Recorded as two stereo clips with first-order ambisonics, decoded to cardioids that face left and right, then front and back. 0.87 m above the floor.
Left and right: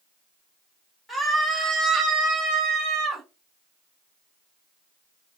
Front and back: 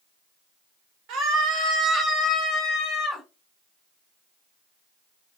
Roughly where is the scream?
Behind.